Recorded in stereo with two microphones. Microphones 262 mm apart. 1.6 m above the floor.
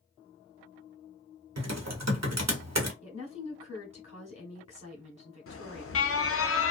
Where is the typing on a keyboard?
80° right, 0.8 m.